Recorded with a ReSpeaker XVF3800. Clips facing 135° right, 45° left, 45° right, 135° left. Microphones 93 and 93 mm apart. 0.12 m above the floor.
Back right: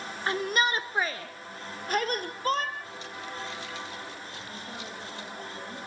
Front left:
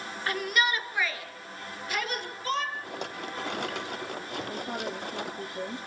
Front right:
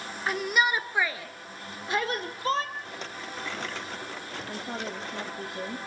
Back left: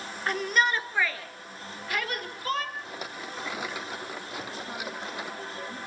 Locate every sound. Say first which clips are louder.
0.3 s a shout: back right 1 dB, even; 130° right, 1.2 m; by 2.6 s 100° right, 2.5 m
2.8 s a rattle: front left 4 dB, back left 1 dB; 55° left, 0.7 m
4.5 s a woman speaking: front left 7 dB, front right 5 dB; straight ahead, 2.5 m